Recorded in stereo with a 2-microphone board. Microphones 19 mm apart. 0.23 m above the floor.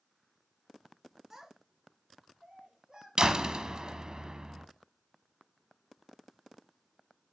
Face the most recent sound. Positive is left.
turn(degrees=-45)  # may be behind; listen again after turning